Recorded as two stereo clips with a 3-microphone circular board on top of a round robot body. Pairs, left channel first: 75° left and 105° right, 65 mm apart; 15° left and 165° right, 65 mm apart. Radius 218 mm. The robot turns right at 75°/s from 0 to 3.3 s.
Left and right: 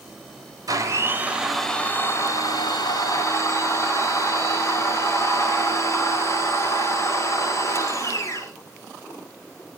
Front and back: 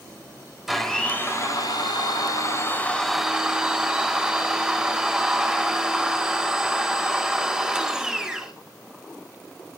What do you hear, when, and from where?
0.7 s a blender: 80° right, 6.5 m; by 8.5 s 115° left, 6.5 m